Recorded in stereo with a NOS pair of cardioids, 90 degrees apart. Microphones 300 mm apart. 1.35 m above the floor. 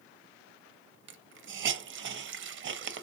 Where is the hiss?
45° right, 0.5 m.